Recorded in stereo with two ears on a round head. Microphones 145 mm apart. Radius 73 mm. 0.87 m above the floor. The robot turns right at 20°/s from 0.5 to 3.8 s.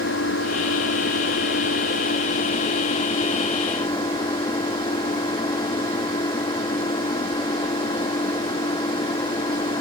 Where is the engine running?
90° left; by 9.8 s 155° left.